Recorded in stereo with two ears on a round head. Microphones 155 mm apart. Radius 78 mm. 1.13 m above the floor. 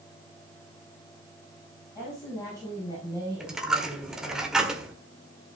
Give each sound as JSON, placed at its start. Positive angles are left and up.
{"t": 1.9, "sound": "a woman speaking", "side_deg": 15, "distance_m": 7.0}
{"t": 3.4, "sound": "a dropped coin", "side_deg": -5, "distance_m": 1.6}